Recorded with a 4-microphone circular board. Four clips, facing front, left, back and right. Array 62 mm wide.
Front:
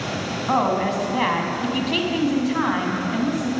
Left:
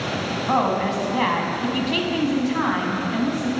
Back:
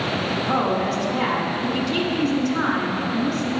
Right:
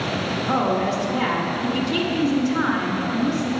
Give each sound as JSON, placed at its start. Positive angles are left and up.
{"t": 0.5, "sound": "a woman speaking", "azimuth_deg": 35, "distance_m": 1.2}